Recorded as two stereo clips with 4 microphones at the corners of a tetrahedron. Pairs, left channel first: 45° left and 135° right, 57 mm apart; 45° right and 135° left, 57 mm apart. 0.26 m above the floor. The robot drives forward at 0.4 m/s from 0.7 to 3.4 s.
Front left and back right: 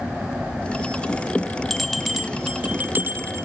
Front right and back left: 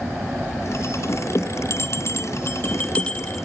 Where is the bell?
40° right, 0.7 m; by 3.5 s 120° right, 0.6 m.